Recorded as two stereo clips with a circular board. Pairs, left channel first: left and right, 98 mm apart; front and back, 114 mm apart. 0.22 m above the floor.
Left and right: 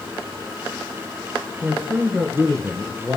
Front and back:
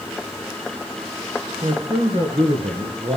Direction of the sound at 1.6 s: 170° right.